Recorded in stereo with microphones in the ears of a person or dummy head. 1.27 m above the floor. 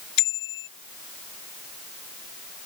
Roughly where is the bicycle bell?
Left.